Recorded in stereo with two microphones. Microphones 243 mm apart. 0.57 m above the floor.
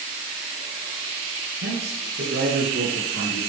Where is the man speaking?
75° right (ahead or behind), 6.5 m; by 3.4 s 60° right (ahead or behind), 7.5 m.